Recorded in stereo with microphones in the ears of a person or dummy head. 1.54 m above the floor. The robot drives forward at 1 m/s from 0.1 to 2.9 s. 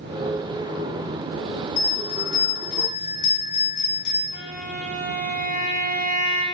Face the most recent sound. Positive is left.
turn(degrees=55)  # may be behind; listen again after turning